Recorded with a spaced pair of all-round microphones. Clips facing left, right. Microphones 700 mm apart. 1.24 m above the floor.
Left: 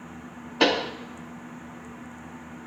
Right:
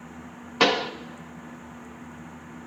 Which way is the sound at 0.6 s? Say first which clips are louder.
Left 1 dB; 40° right (ahead or behind).